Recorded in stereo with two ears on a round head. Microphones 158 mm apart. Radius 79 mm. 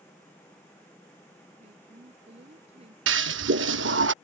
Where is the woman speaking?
35° right (ahead or behind).